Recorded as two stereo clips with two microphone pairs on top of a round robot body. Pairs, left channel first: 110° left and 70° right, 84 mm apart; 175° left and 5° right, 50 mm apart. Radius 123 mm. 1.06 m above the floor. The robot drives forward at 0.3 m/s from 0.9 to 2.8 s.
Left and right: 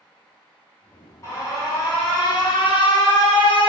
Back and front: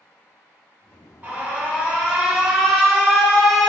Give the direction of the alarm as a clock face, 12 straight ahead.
10 o'clock.